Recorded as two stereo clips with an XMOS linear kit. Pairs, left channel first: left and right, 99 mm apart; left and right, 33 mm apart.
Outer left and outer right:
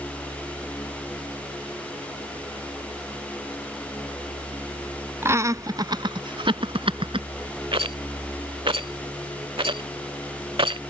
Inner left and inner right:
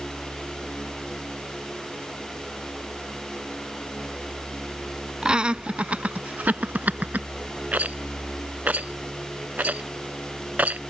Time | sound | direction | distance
5.2 | laughter | 25° right (ahead or behind) | ?
7.7 | a rattle | 60° right (ahead or behind) | ?